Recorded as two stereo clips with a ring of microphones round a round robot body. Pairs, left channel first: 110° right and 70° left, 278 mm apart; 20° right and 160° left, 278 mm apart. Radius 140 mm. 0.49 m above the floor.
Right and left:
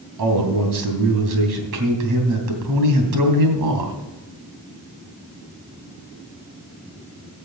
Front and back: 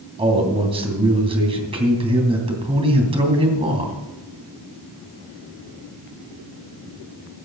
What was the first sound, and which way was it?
A man speaking, 85° left.